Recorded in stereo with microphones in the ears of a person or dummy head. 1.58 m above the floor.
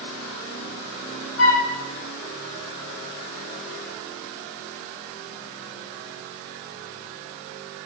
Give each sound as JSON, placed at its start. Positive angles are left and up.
{"t": 1.4, "sound": "a flute", "side_deg": 75, "distance_m": 4.5}